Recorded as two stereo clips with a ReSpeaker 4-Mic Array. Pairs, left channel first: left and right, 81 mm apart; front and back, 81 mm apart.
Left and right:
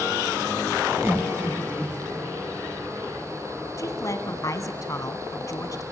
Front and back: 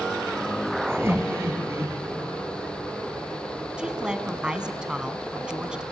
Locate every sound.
0.9 s laughter: 135° right, 2.5 m
3.8 s a woman speaking: 105° left, 1.4 m